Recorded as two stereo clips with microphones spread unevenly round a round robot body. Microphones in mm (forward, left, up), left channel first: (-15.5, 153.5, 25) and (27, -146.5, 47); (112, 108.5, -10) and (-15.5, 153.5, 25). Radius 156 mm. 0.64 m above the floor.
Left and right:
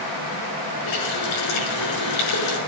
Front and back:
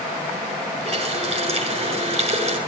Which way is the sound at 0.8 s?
120° left.